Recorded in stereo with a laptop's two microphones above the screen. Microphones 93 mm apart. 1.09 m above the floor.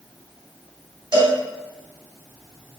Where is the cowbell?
50° right (ahead or behind), 1.7 m.